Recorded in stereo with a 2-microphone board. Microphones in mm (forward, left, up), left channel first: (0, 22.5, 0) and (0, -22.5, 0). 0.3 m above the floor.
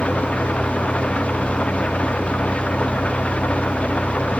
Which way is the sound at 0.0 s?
30° left (ahead or behind).